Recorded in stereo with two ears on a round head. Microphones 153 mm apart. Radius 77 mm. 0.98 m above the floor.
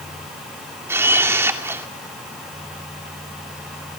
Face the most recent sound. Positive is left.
turn(degrees=-15)  # may be behind; listen again after turning